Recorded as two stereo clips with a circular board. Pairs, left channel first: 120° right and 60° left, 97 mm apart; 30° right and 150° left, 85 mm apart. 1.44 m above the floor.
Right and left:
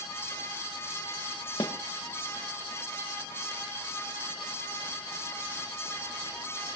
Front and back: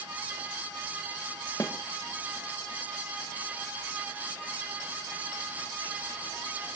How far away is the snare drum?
About 2 m.